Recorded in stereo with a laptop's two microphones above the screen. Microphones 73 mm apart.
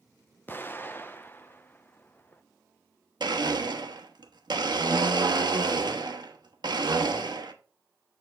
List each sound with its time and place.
0.5 s an explosion: 30° left (ahead or behind), 0.6 m
3.2 s a blender: 85° right, 1.2 m